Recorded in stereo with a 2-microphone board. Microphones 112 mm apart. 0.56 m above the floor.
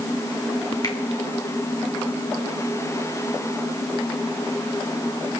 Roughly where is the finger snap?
Left.